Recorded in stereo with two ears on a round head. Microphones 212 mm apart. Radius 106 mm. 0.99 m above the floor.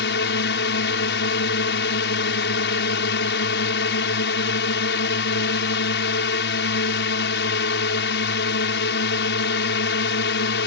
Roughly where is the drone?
Left.